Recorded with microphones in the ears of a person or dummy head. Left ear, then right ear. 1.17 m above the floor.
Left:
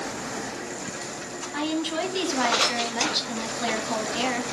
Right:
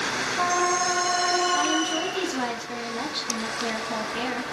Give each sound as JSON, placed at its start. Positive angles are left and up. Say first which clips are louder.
{"t": 1.5, "sound": "a woman speaking", "louder": "right 4 dB", "side_deg": 20, "distance_m": 2.0}